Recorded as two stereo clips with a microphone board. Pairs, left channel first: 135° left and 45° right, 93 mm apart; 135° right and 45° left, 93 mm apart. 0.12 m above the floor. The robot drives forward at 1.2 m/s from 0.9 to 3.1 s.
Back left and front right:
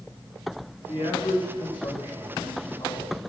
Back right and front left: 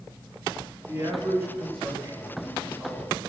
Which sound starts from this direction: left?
A man speaking, at 0.9 s.